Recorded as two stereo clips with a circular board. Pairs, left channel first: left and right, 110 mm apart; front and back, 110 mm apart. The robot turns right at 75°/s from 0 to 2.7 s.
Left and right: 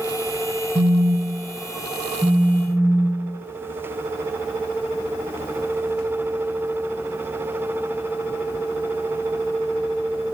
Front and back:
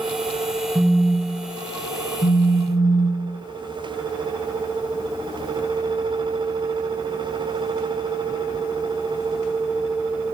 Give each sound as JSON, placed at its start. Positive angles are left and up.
{"t": 0.8, "sound": "a phone buzzing", "azimuth_deg": -125, "distance_m": 7.5}